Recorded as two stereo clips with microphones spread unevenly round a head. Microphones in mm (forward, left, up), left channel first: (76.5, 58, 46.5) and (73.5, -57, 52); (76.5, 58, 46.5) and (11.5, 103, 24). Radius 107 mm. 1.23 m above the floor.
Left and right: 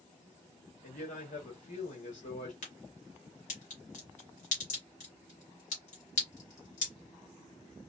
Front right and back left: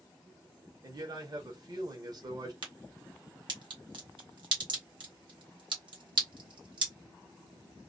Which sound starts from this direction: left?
A man speaking, at 0.8 s.